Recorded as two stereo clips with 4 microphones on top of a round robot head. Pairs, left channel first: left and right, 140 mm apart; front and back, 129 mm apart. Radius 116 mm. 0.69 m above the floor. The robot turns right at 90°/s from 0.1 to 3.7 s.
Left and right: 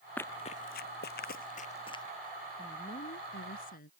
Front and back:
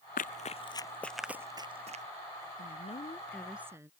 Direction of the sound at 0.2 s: 10° left.